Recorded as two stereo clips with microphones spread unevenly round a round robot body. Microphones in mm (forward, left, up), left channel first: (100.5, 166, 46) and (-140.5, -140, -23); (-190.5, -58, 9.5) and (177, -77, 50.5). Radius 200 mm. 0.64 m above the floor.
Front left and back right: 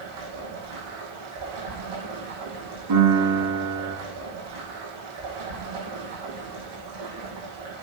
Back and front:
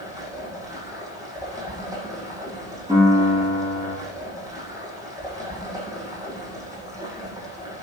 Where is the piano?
80° right, 9.5 m.